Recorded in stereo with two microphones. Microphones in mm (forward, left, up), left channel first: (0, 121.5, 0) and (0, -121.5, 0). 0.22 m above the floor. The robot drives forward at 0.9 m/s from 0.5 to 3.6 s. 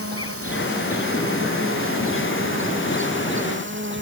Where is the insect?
70° right (ahead or behind); by 4.0 s 50° right (ahead or behind).